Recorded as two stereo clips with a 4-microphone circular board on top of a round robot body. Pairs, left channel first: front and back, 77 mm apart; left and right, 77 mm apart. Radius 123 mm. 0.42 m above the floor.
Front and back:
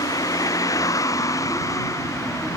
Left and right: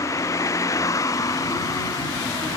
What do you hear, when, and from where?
0.0 s a vehicle: 40° left; by 2.6 s 50° left